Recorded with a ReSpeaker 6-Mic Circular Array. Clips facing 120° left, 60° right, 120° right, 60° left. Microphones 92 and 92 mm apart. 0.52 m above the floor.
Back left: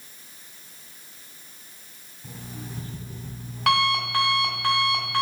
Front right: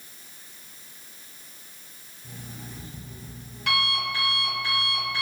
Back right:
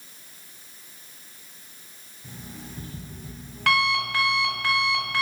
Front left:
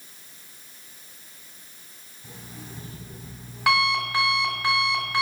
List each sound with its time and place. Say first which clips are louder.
2.2 s an alarm clock: back left 3 dB, back right 1 dB; 135° left, 1.8 m